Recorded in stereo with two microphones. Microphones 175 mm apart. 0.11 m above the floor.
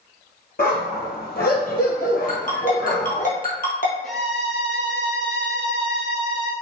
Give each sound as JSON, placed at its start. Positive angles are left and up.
{"t": 0.6, "sound": "a dog barking", "side_deg": 60, "distance_m": 1.0}
{"t": 2.3, "sound": "a ringtone", "side_deg": 55, "distance_m": 1.4}
{"t": 4.0, "sound": "a violin", "side_deg": 5, "distance_m": 1.2}